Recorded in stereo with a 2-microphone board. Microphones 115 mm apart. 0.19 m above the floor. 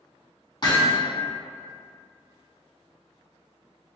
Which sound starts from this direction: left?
Hammering, at 0.6 s.